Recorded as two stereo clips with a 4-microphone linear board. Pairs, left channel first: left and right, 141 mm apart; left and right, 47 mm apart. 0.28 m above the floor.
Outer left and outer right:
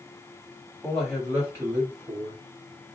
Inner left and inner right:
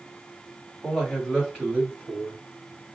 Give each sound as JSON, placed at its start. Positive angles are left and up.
{"t": 0.8, "sound": "a man speaking", "side_deg": 0, "distance_m": 1.8}